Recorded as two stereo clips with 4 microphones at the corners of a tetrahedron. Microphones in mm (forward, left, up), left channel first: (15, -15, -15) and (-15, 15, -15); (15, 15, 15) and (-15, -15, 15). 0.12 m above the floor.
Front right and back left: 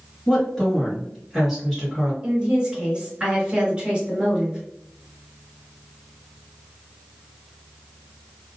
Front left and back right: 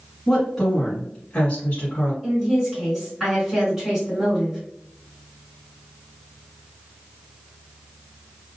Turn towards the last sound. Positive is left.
turn(degrees=150)